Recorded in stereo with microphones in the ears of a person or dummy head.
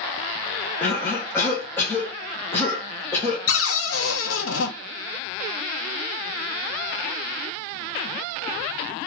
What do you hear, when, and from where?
0.8 s a cough: 10° left (ahead or behind), 0.8 m
3.5 s a cupboard door: 70° left (ahead or behind), 0.6 m